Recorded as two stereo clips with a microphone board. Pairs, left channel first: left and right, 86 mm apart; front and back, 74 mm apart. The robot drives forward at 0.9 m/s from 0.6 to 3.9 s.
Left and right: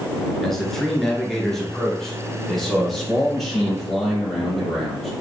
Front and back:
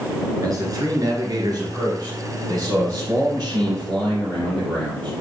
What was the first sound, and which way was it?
A man speaking, 175° left.